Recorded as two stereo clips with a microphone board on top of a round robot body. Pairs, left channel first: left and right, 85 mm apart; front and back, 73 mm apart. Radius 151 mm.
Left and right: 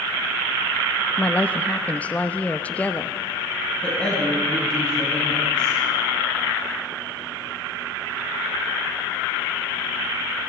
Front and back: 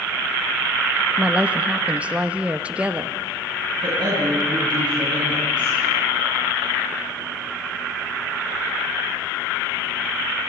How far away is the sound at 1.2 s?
About 1.1 m.